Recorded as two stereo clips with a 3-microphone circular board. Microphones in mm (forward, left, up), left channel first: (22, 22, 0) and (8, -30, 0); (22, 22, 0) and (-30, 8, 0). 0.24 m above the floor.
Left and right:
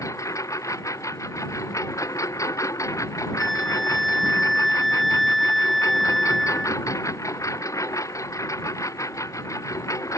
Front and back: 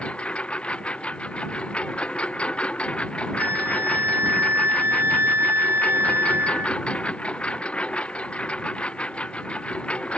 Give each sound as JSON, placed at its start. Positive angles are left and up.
{"t": 0.0, "sound": "a lawn mower", "azimuth_deg": 85}
{"t": 3.4, "sound": "a flute", "azimuth_deg": 165}